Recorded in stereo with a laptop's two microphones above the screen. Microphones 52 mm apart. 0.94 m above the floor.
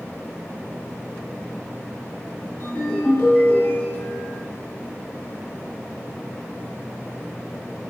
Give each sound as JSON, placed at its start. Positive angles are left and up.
{"t": 2.6, "sound": "a ringtone", "side_deg": 80, "distance_m": 1.4}